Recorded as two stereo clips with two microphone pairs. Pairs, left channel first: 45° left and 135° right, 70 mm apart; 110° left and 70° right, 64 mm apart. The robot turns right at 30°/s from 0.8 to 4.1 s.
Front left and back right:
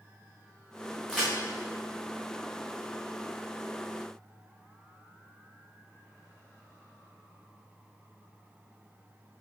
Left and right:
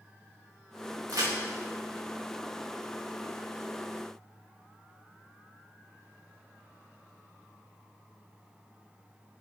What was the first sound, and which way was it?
A crack, 50° right.